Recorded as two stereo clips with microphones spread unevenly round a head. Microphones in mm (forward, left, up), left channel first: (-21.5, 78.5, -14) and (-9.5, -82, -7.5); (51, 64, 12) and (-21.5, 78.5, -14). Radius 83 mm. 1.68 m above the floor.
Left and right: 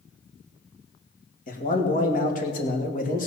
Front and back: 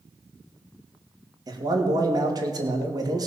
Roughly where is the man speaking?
Behind left.